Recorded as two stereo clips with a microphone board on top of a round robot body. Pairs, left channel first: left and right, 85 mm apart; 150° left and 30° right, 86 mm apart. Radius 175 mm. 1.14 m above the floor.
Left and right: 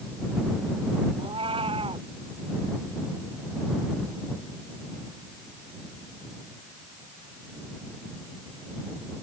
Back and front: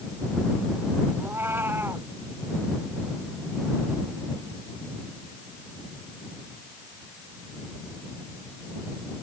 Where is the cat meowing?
95° right.